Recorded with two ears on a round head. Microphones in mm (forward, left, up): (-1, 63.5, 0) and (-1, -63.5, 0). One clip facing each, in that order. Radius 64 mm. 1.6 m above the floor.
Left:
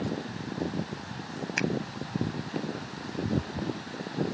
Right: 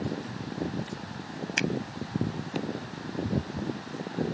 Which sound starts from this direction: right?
A finger snap, at 1.6 s.